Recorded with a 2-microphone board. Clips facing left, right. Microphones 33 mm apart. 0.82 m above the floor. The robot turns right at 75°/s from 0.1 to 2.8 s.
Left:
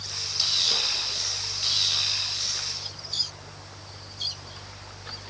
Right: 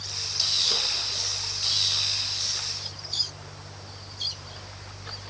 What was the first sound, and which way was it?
Only background noise.